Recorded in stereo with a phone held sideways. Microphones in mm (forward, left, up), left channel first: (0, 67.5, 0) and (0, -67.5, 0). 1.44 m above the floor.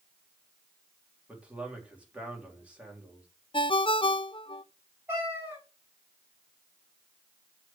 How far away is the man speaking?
About 3.5 m.